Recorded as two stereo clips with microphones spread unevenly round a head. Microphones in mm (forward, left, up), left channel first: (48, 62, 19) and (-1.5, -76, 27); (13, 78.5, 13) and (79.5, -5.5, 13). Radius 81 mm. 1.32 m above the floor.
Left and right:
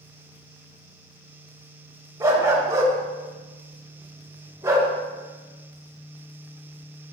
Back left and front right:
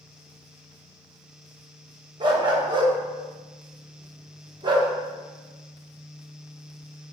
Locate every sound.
2.2 s a dog barking: 55° right, 1.0 m